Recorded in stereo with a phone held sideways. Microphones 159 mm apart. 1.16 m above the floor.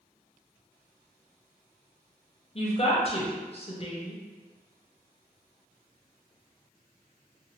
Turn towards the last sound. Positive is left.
turn(degrees=40)  # may be behind; listen again after turning